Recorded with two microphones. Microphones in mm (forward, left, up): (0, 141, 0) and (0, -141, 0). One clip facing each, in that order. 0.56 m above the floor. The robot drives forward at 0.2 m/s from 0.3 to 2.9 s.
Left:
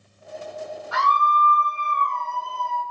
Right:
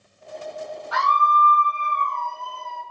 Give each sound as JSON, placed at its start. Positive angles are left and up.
{"t": 0.9, "sound": "a scream", "side_deg": 25, "distance_m": 1.2}